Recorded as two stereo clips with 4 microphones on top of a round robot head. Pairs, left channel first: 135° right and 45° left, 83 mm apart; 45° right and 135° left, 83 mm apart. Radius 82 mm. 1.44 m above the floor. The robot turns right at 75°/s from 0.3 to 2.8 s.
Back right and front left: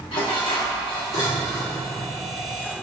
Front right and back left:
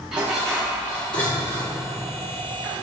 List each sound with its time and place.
0.1 s dishes clattering: 145° right, 2.5 m; by 1.8 s 35° right, 2.5 m